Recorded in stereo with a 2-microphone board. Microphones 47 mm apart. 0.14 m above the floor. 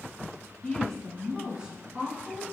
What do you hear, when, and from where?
0.6 s a woman speaking: 20° left (ahead or behind), 1.1 m; by 2.5 s 40° right (ahead or behind), 1.4 m